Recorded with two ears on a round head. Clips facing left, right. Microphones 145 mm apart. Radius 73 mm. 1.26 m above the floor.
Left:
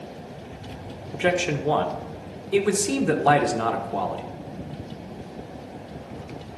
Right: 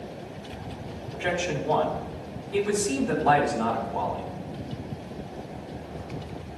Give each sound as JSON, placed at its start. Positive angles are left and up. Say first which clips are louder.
{"t": 1.1, "sound": "a man speaking", "louder": "left 5 dB", "side_deg": 70, "distance_m": 1.3}